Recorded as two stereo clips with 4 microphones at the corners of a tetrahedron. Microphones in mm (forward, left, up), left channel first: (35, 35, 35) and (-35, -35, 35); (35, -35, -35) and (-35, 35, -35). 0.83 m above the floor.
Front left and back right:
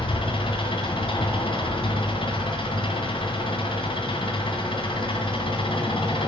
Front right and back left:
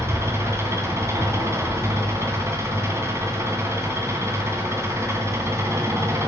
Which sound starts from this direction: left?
An engine running, at 0.0 s.